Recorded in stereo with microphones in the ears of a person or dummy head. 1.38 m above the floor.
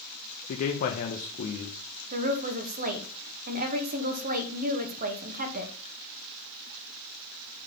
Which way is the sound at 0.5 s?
50° left (ahead or behind).